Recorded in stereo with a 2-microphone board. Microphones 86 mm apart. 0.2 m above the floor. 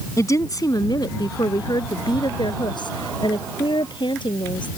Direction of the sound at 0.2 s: 40° left (ahead or behind).